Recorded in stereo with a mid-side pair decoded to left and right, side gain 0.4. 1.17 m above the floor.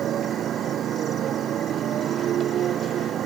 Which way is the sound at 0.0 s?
70° right.